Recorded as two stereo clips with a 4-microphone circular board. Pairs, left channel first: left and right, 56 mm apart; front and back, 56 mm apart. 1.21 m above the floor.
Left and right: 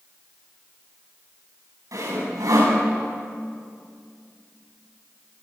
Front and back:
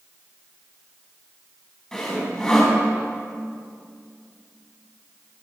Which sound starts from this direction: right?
Sawing, at 1.9 s.